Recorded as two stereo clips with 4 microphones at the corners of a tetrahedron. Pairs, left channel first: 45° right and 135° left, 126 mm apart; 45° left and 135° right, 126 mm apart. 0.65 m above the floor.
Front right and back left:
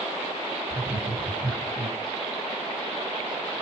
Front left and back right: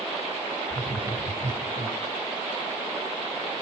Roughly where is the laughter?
Ahead left.